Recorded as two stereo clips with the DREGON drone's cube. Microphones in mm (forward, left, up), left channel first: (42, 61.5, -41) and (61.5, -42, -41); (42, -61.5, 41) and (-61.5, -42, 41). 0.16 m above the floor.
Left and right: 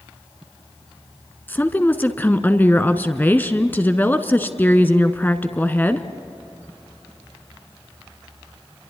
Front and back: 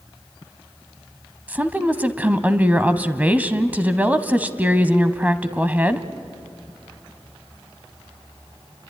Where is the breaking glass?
No breaking glass in this recording.